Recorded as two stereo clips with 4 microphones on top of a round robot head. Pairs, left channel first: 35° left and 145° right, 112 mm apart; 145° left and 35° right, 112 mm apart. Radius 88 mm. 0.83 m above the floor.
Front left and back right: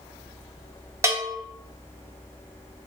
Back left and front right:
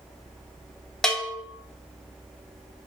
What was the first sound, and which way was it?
A bell, 140° right.